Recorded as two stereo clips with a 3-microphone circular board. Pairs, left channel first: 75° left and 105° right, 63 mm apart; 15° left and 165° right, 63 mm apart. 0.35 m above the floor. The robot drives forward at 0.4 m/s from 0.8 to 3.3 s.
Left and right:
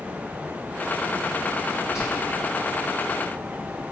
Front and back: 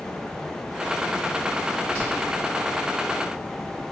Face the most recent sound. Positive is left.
turn(degrees=-90)